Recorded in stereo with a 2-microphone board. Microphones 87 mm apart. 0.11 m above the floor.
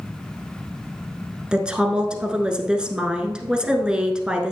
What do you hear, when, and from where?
1.5 s a woman speaking: 10° right (ahead or behind), 1.2 m